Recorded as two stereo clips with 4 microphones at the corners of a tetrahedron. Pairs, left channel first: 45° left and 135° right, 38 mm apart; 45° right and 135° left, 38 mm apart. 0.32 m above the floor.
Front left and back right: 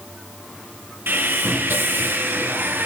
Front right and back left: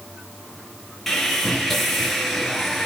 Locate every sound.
1.1 s sawing: 130° right, 5 m